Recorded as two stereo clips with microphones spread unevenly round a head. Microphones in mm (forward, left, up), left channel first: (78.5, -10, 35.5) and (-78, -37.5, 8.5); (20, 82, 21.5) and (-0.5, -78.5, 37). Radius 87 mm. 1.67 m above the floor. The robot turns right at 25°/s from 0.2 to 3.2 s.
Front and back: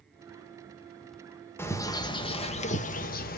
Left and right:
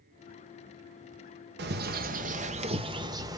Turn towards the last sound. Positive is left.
turn(degrees=-25)